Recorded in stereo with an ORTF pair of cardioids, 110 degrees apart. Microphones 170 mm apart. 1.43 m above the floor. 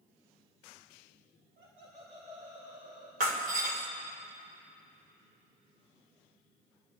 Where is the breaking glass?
55° right, 3 m.